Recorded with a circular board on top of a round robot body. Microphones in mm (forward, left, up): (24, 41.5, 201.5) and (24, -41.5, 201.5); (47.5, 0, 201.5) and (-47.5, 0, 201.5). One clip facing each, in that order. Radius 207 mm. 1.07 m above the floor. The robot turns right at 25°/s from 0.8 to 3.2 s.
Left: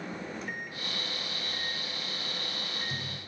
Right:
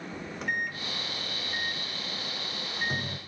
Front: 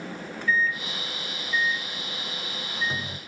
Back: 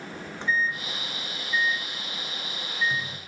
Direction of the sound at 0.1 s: 115° right.